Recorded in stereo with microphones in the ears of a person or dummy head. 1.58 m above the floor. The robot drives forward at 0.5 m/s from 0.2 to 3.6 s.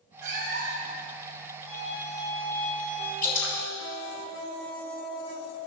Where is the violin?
40° left (ahead or behind), 3 m; by 3.1 s 30° left (ahead or behind), 3.5 m.